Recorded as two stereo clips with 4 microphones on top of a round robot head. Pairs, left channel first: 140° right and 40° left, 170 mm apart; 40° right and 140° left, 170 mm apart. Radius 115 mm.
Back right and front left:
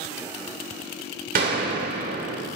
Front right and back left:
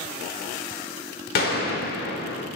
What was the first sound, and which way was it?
A gunshot, 5° right.